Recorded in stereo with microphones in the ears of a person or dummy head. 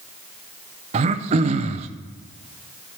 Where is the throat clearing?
40° right (ahead or behind), 0.6 m.